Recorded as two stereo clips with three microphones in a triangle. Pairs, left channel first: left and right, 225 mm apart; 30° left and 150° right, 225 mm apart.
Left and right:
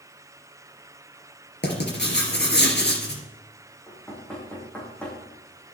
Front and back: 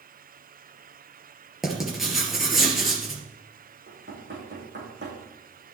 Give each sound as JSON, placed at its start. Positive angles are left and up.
{"t": 1.6, "sound": "writing", "azimuth_deg": 120, "distance_m": 3.0}
{"t": 3.9, "sound": "knocking", "azimuth_deg": 175, "distance_m": 5.0}